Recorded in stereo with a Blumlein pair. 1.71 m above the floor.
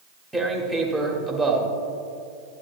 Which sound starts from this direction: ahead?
Tearing paper, at 0.3 s.